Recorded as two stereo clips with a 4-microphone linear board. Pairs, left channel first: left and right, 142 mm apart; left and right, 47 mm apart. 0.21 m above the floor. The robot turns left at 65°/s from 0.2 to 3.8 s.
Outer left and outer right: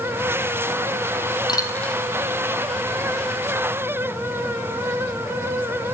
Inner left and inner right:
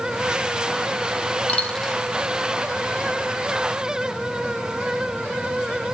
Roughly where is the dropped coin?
Left.